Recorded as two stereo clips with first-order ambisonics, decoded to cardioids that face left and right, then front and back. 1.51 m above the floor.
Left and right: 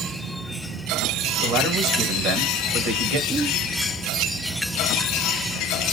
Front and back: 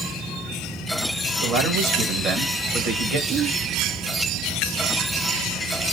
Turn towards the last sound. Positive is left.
turn(degrees=-170)